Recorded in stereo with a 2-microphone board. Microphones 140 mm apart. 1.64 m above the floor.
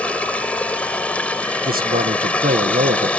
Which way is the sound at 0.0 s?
10° left (ahead or behind).